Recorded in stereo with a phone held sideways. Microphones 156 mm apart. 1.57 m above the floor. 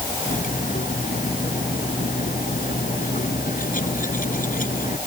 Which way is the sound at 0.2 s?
70° left (ahead or behind).